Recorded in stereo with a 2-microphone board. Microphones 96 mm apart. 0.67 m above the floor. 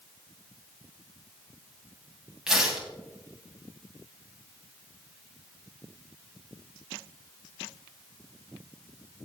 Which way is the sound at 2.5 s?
5° right (ahead or behind).